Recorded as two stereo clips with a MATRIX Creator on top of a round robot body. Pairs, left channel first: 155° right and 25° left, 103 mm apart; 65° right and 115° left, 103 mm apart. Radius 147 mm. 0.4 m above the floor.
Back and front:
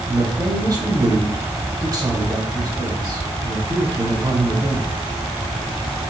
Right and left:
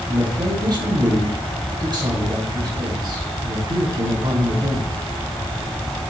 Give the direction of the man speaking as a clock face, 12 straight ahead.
10 o'clock.